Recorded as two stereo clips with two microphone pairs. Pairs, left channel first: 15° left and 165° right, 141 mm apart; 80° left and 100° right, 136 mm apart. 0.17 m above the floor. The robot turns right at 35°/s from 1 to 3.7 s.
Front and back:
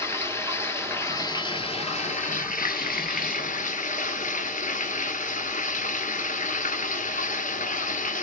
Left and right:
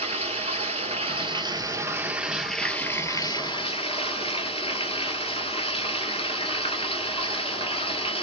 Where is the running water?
55° right, 1.1 m; by 8.2 s 40° left, 1.1 m.